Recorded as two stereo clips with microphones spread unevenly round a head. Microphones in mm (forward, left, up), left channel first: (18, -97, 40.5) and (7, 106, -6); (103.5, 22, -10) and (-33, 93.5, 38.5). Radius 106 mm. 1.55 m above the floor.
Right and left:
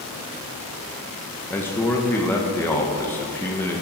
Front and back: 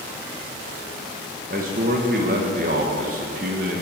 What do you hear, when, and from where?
1.5 s a man speaking: 165° right, 1.2 m